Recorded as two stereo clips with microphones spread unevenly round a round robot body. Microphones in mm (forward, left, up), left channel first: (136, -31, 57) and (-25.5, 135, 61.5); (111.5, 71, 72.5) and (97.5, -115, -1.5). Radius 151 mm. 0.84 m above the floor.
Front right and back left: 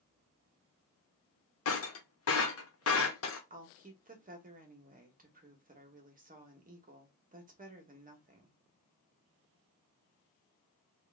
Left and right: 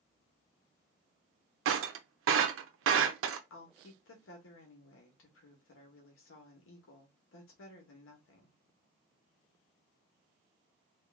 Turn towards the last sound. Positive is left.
turn(degrees=90)